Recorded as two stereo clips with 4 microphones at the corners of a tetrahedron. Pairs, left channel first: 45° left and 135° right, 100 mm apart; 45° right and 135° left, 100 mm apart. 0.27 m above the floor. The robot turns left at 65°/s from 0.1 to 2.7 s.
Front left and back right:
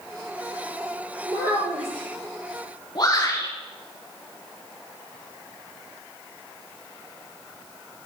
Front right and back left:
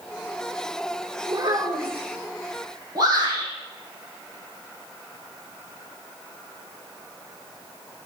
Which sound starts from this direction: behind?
A child speaking, at 1.2 s.